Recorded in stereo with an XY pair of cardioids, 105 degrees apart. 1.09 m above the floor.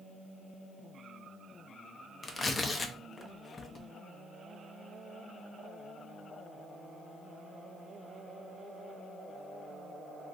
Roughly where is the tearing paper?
Ahead left.